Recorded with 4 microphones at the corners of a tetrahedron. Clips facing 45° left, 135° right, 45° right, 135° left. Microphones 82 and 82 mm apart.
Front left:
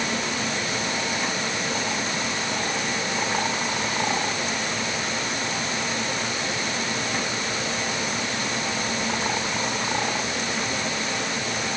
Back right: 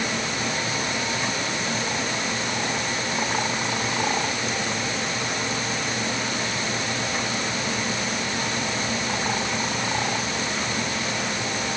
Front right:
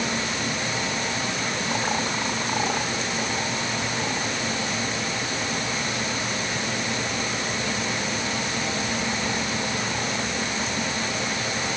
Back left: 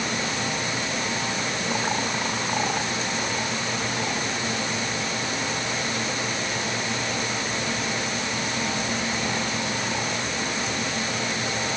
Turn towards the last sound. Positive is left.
No sound to turn to.